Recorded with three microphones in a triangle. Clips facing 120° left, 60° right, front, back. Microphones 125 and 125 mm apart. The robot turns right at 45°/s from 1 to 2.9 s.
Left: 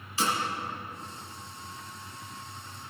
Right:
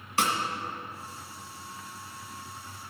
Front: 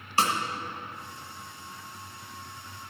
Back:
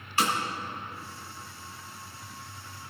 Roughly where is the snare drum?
Ahead right.